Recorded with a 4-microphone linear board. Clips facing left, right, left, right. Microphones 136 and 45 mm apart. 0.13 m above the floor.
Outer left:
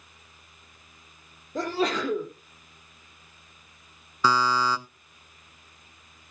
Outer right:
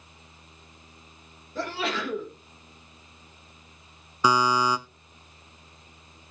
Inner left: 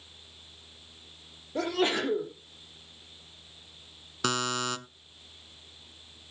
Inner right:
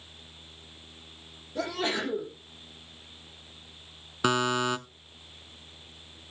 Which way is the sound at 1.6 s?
40° left (ahead or behind).